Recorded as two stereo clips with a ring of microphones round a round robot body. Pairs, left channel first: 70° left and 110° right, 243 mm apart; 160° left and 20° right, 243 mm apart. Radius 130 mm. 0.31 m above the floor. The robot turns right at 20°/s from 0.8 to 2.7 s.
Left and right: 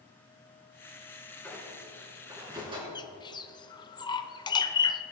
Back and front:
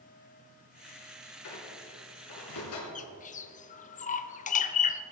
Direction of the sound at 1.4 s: 150° left.